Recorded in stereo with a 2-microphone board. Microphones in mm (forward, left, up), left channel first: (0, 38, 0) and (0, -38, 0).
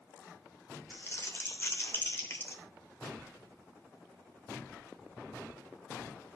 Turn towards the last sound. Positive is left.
turn(degrees=35)  # may be behind; listen again after turning